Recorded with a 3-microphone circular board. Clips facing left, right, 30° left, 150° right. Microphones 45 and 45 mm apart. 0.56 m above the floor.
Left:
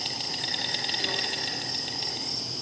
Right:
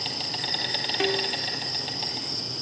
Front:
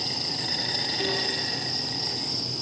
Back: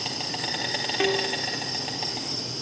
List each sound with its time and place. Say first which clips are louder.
0.0 s an insect: right 2 dB, back 2 dB; 170° right, 4.5 m
1.0 s a snare drum: right 8 dB, back 6 dB; 135° right, 3.5 m